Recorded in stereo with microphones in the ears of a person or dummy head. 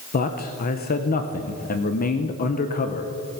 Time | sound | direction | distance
0.1 | a man speaking | 45° left (ahead or behind) | 0.8 m